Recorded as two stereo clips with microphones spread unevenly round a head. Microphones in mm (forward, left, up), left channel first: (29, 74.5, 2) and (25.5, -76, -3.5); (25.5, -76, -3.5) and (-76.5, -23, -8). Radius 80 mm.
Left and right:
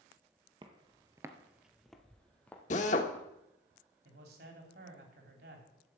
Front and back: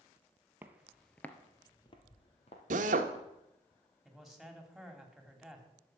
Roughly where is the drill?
Behind left.